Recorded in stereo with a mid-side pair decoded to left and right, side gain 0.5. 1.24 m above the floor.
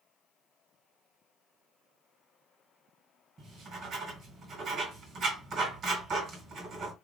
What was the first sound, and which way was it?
Writing, 55° right.